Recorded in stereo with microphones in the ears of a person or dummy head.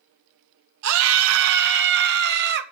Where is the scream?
75° right (ahead or behind), 1.7 m; by 2.6 s 50° right (ahead or behind), 2.5 m.